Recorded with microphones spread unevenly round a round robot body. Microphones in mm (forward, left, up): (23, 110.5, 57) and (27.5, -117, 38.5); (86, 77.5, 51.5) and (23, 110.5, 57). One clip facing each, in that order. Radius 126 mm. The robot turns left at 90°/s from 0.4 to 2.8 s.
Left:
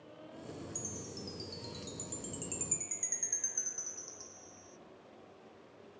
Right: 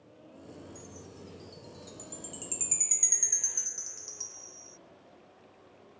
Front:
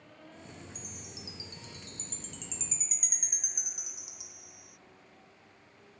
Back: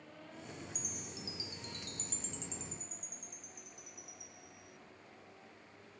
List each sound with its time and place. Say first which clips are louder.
0.8 s a chime: left 2 dB, even; 140° left; by 4.8 s 45° right